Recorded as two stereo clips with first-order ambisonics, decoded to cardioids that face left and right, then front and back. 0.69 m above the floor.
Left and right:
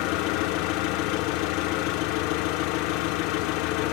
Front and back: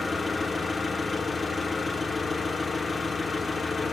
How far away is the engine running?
About 0.9 m.